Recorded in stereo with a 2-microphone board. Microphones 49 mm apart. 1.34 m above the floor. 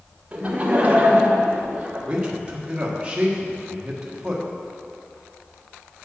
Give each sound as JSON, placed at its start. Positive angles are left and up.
{"t": 0.3, "sound": "laughter", "side_deg": -25, "distance_m": 1.3}
{"t": 2.1, "sound": "a man speaking", "side_deg": -20, "distance_m": 1.5}